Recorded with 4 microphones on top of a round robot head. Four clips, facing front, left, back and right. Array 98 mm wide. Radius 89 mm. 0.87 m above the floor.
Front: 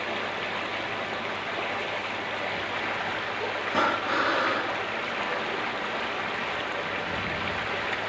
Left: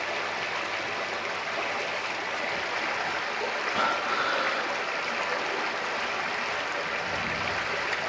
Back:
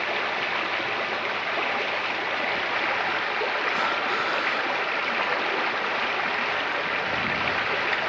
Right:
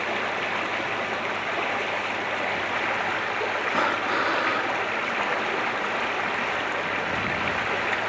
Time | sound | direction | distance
0.0 | running water | 145° right | 0.8 m
3.7 | breathing | 50° right | 2.5 m